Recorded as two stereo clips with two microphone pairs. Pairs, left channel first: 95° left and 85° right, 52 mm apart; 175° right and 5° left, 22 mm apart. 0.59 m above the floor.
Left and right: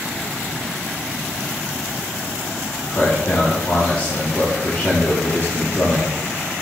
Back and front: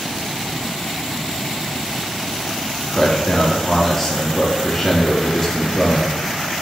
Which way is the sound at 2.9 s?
125° left.